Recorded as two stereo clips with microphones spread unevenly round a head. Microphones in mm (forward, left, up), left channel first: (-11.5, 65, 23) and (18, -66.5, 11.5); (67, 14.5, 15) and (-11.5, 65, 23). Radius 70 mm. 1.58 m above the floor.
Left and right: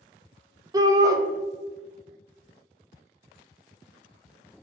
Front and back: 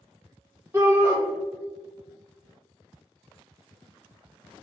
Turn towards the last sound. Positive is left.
turn(degrees=-140)